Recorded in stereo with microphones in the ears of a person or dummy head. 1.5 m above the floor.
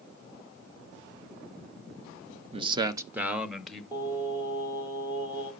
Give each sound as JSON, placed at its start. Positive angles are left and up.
{"t": 2.5, "sound": "a man speaking", "side_deg": -30, "distance_m": 0.8}
{"t": 3.9, "sound": "singing", "side_deg": -10, "distance_m": 3.5}